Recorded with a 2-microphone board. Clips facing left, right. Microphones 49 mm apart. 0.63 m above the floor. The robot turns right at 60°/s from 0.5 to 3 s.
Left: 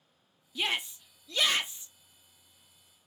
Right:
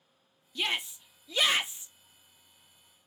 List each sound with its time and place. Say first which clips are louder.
0.6 s a shout: even; 5° left (ahead or behind), 0.6 m; by 1.9 s 20° right (ahead or behind), 0.6 m